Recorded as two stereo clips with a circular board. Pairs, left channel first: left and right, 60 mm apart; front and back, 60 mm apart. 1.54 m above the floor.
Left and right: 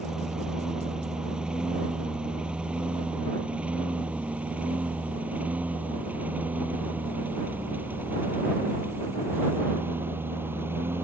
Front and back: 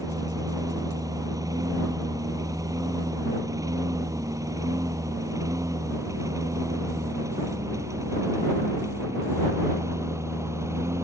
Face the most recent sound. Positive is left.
turn(degrees=-145)